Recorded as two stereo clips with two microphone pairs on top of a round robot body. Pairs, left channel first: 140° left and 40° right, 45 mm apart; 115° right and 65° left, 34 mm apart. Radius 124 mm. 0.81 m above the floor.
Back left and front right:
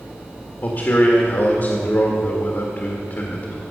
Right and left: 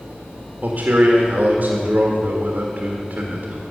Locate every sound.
0.6 s a man speaking: 105° left, 1.6 m